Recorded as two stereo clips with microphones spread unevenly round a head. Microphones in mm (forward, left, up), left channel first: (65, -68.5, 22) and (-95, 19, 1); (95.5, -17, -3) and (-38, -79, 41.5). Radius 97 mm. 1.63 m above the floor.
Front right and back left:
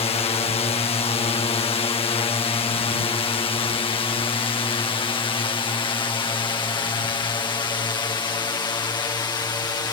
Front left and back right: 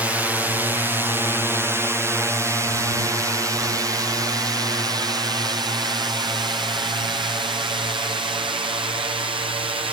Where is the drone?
55° right; by 9.9 s 95° right.